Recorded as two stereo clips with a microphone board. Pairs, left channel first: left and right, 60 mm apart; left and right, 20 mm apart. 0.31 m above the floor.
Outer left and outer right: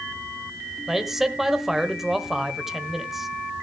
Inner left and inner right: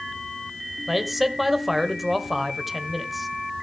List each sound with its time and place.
0.9 s a man speaking: 5° right (ahead or behind), 1.3 m